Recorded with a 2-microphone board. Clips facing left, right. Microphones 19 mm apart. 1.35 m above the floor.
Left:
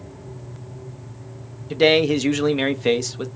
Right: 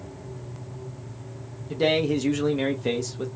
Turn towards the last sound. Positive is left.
turn(degrees=40)  # may be behind; listen again after turning